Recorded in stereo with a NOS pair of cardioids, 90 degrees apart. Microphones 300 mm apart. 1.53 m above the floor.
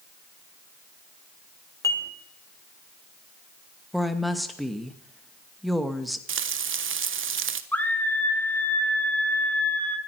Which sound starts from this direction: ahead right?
Frying, at 6.3 s.